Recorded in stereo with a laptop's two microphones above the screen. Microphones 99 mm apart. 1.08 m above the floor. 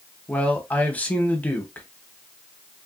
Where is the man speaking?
15° left (ahead or behind), 0.8 m.